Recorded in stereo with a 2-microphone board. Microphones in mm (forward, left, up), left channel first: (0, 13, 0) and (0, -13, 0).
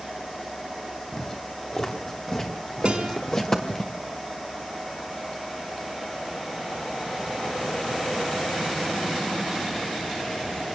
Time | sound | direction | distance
1.1 | footsteps | 25° left (ahead or behind) | 7 m
2.9 | a guitar | 45° right (ahead or behind) | 3 m